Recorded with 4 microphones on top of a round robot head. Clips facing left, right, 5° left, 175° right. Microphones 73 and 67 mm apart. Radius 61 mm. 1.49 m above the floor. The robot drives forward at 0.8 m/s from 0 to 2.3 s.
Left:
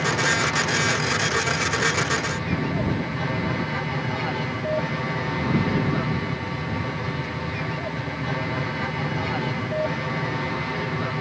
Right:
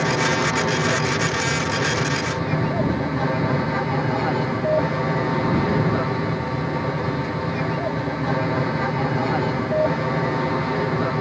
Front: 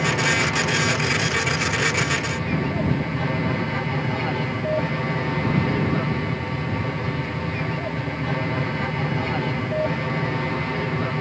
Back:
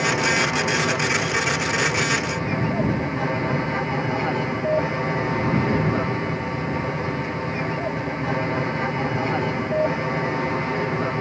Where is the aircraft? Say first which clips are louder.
Right 2 dB, back 1 dB; 110° right; by 11.2 s 115° right.